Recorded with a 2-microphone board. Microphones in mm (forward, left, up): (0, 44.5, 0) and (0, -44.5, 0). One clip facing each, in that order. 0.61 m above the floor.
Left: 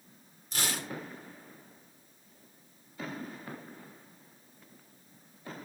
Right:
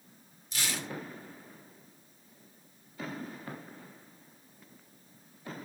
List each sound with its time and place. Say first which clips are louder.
0.5 s tearing paper: left 1 dB; 45° left (ahead or behind), 1.5 m